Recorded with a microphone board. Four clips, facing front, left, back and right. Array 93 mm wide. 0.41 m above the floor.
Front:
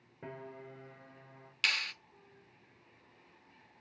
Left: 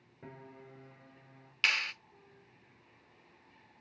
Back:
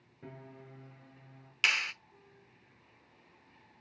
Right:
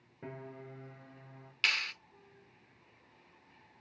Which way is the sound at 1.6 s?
155° left.